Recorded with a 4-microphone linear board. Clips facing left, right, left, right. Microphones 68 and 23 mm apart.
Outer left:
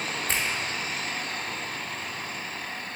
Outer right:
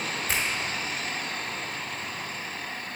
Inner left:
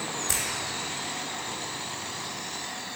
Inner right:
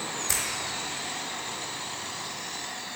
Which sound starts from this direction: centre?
A finger snap, at 0.3 s.